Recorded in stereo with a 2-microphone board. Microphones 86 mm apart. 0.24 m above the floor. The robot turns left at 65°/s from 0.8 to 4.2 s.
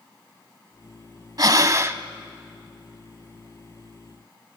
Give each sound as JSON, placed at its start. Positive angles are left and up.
{"t": 1.4, "sound": "breathing", "azimuth_deg": -100, "distance_m": 0.7}